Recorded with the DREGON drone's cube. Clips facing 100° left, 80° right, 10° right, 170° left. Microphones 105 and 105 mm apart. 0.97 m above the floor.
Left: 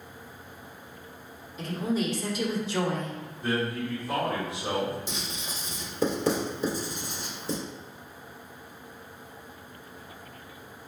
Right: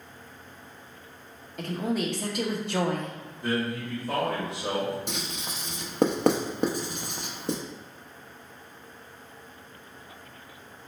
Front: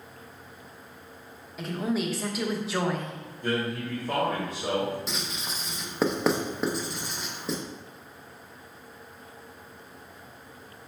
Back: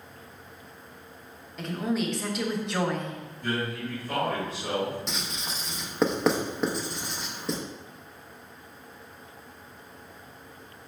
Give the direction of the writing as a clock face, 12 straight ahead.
3 o'clock.